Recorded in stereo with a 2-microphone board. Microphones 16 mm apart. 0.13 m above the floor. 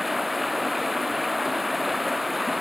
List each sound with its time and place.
0.0 s running water: 10° right (ahead or behind)